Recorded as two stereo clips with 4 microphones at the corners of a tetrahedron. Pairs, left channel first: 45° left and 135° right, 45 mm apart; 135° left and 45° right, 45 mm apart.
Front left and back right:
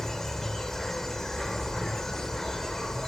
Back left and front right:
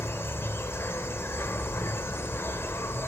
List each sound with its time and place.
0.0 s an insect: 125° left, 1.3 m